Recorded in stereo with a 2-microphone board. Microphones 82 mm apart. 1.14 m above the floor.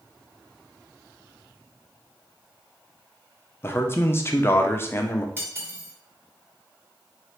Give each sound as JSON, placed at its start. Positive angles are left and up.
{"t": 3.6, "sound": "a man speaking", "side_deg": 30, "distance_m": 0.5}
{"t": 5.4, "sound": "cutlery clinking", "side_deg": -25, "distance_m": 1.3}